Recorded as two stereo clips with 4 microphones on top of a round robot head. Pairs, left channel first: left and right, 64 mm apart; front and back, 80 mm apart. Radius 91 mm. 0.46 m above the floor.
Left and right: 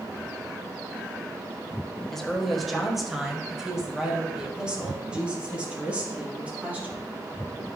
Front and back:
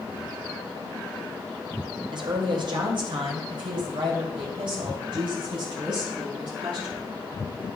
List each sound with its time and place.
2.1 s a woman speaking: 175° left, 2 m; by 7.1 s 155° right, 4.5 m